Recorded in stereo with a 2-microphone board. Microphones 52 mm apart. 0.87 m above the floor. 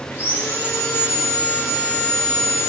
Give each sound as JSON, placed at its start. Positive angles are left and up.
{"t": 0.1, "sound": "sawing", "side_deg": 45, "distance_m": 3.5}